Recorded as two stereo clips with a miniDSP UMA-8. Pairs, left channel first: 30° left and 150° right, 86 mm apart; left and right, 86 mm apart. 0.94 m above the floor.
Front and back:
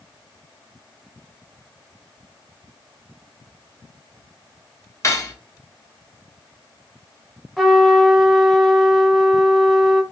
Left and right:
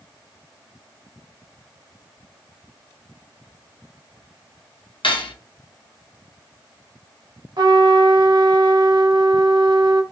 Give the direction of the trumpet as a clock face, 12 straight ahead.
2 o'clock.